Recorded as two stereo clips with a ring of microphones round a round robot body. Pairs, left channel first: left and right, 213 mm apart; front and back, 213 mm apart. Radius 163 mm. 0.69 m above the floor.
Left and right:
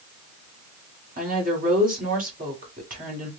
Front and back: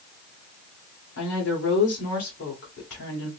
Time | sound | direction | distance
1.2 | a woman speaking | 40° right | 2.5 m